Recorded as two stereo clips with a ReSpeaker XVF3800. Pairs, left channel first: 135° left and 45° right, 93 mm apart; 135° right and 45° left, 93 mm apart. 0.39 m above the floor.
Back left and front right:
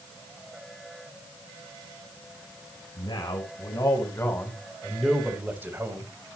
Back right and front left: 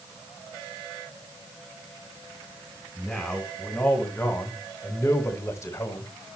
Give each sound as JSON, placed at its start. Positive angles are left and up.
{"t": 3.0, "sound": "a man speaking", "azimuth_deg": 145, "distance_m": 1.9}